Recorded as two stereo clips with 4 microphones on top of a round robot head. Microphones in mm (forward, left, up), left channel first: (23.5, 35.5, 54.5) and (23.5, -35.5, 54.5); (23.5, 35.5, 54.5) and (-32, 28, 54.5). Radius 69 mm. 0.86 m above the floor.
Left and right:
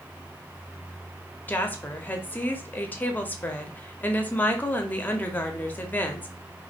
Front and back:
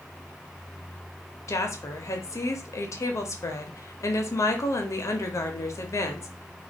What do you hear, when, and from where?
1.5 s a woman speaking: 25° left, 0.7 m